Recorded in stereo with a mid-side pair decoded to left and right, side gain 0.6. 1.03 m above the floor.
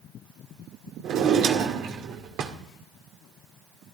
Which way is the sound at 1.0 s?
60° right.